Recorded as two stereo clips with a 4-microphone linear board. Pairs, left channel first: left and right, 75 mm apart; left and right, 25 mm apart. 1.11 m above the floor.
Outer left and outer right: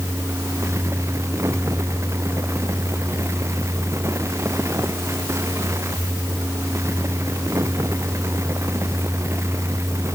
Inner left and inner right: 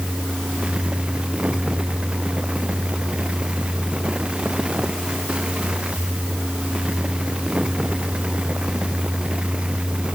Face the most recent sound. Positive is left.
No sound to turn to.